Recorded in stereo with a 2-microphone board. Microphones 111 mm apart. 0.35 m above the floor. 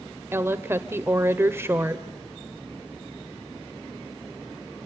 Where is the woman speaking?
20° right (ahead or behind), 0.9 m.